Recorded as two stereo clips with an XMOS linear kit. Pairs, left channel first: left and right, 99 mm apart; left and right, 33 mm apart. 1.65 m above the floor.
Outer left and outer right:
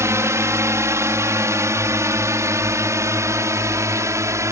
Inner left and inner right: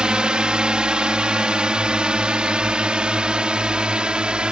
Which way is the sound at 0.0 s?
30° right (ahead or behind).